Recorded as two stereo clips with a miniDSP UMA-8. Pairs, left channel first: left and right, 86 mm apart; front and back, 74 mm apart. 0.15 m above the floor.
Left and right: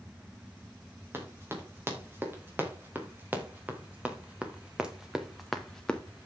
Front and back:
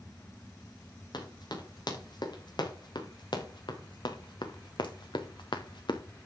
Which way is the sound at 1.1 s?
25° right.